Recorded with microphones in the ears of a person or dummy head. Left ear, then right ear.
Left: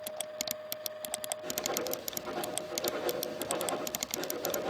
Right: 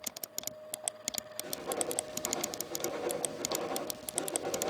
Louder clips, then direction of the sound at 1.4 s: Left 1 dB; 5° right (ahead or behind).